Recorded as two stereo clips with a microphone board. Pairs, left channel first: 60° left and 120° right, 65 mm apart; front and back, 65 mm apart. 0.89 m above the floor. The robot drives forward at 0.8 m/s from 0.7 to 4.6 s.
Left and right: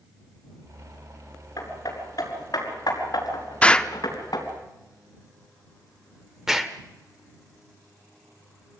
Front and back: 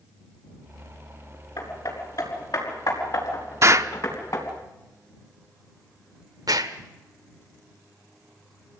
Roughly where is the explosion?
Behind left.